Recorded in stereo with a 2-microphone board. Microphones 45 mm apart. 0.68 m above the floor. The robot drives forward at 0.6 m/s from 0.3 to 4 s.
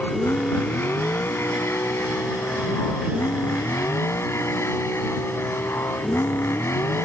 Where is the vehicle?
55° left (ahead or behind); by 7.1 s 85° left.